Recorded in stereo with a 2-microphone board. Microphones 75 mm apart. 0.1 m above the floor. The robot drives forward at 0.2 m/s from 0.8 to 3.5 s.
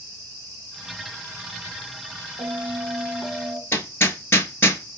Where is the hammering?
30° left (ahead or behind), 0.6 m.